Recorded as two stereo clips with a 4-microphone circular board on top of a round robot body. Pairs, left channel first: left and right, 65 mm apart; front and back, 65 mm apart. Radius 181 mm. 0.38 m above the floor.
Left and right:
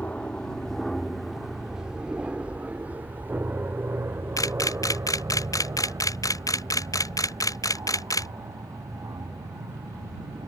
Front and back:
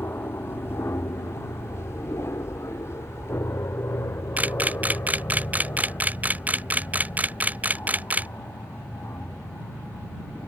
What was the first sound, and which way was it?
An aircraft, 30° left.